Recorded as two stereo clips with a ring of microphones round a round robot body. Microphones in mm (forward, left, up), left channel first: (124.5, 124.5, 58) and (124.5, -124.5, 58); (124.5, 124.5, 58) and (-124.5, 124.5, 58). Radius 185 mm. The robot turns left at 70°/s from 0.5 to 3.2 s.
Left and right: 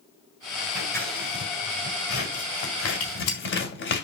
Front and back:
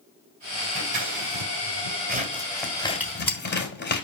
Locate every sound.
0.8 s scissors: 140° right, 3 m; by 4.0 s 50° left, 3 m
3.0 s a gunshot: 95° left, 3.5 m; by 3.4 s 80° left, 3.5 m